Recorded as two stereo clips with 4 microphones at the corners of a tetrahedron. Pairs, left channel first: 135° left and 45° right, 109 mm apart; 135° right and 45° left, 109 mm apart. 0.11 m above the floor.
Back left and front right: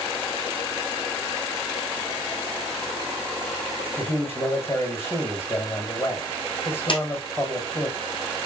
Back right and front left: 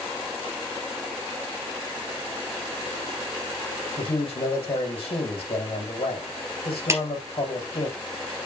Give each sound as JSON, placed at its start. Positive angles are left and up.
{"t": 4.0, "sound": "a man speaking", "azimuth_deg": -160, "distance_m": 4.5}
{"t": 6.9, "sound": "a clap", "azimuth_deg": 105, "distance_m": 2.5}